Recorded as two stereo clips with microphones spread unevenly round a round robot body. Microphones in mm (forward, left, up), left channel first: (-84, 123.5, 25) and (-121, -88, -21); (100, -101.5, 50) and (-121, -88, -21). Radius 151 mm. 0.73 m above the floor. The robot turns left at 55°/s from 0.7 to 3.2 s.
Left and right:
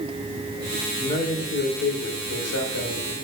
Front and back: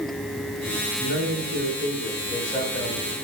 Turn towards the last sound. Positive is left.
turn(degrees=30)